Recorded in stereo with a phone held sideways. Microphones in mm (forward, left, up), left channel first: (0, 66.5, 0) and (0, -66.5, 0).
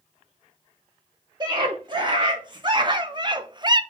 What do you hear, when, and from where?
1.4 s a scream: 35° right (ahead or behind), 2.5 m; by 3.8 s 30° right (ahead or behind), 0.7 m